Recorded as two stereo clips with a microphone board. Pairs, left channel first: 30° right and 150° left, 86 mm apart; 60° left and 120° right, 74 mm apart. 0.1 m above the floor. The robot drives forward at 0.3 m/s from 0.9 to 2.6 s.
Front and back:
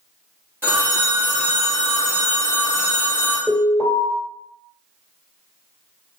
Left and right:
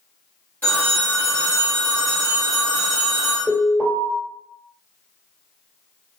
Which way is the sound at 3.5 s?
170° left.